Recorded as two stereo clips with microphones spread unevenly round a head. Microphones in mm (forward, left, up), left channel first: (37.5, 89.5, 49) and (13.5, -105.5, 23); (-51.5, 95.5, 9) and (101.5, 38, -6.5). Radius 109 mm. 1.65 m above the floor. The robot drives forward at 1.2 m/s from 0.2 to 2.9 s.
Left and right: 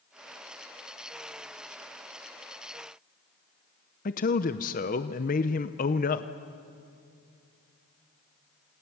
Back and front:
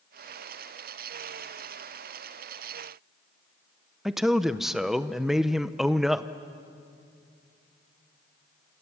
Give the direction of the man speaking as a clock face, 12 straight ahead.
10 o'clock.